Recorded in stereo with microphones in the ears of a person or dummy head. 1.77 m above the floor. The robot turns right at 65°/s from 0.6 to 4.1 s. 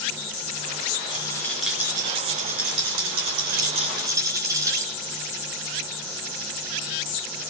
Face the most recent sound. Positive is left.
turn(degrees=-20)